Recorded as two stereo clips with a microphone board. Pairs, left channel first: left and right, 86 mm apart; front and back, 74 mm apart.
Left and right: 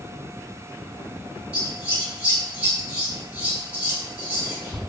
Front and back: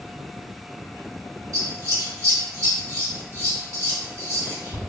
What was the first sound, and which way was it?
Scissors, 160° right.